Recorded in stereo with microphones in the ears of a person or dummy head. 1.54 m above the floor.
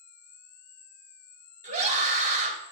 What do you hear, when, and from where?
0.0 s an insect: 20° left (ahead or behind), 3 m
1.6 s a scream: 40° right (ahead or behind), 3.5 m